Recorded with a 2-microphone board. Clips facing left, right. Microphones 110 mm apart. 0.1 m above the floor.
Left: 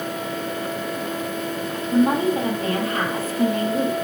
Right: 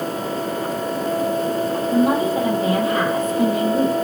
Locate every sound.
1.9 s a woman speaking: 20° right (ahead or behind), 2.5 m